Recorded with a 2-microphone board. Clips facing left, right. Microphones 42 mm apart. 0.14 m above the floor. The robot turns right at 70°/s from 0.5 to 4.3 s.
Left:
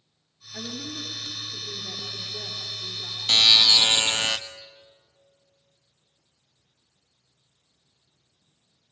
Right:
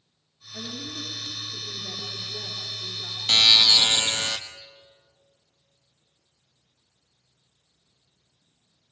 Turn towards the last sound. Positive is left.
turn(degrees=60)